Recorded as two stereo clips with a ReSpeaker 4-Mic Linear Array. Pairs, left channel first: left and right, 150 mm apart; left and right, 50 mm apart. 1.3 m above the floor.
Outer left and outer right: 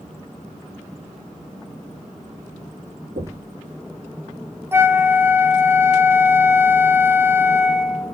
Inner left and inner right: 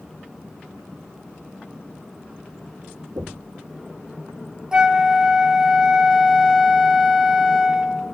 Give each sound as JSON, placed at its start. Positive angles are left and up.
{"t": 3.2, "sound": "knocking", "side_deg": -80, "distance_m": 1.8}
{"t": 4.7, "sound": "a flute", "side_deg": -15, "distance_m": 0.7}